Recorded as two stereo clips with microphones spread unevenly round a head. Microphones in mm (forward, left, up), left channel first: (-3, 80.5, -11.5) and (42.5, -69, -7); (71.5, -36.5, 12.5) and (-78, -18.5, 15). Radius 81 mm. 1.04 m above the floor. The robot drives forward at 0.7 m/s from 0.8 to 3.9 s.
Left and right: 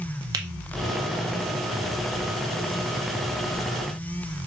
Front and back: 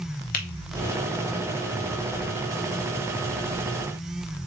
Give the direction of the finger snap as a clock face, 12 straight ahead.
12 o'clock.